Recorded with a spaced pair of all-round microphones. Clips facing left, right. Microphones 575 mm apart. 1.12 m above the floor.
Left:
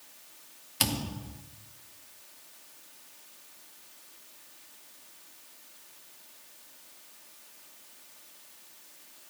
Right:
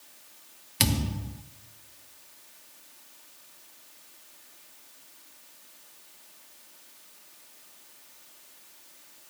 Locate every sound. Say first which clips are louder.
0.8 s a thud: right 4 dB; 50° right (ahead or behind), 0.6 m